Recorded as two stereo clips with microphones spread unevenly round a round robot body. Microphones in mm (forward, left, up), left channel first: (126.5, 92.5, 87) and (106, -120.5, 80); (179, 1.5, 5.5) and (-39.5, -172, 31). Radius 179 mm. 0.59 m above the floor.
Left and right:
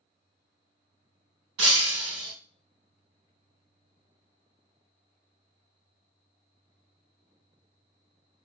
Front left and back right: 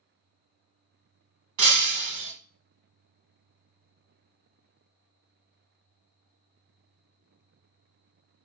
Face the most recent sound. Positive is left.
turn(degrees=-130)